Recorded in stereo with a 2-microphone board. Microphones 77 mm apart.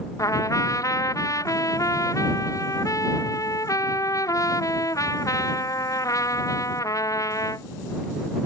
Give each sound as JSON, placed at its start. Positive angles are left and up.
{"t": 0.2, "sound": "a trumpet", "side_deg": 45}